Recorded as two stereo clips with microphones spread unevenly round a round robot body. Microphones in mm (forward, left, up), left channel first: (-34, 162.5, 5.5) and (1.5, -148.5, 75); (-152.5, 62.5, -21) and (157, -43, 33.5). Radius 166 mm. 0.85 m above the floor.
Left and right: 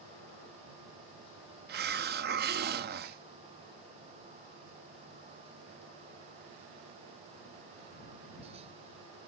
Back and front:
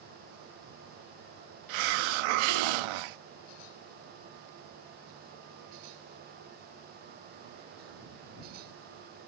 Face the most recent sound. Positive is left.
turn(degrees=-20)